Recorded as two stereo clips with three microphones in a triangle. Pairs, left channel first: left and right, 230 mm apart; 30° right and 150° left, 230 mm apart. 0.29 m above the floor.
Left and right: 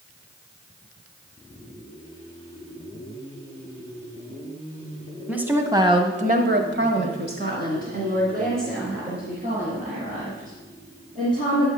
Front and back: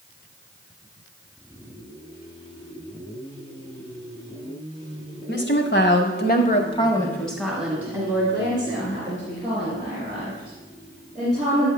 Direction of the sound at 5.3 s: 5° right.